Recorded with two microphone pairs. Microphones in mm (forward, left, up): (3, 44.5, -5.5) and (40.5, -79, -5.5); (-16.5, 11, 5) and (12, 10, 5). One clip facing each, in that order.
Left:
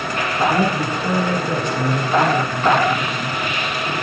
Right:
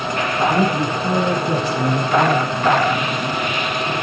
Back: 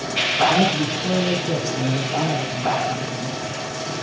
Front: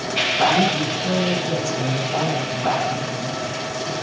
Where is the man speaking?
125° right, 3.5 m.